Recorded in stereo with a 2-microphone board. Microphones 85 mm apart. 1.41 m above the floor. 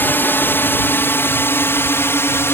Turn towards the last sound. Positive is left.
turn(degrees=30)  # may be behind; listen again after turning